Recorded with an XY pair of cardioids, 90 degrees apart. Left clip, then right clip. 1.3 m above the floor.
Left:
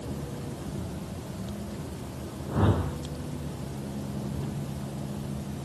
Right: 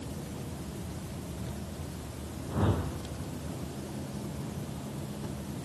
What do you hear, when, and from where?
2.5 s a whoosh: 35° left